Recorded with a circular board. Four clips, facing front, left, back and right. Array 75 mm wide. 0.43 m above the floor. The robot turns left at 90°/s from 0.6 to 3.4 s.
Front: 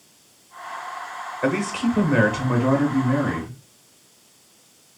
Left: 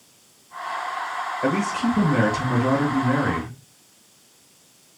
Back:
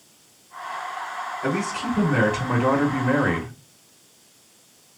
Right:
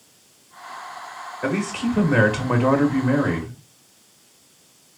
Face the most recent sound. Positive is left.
turn(degrees=180)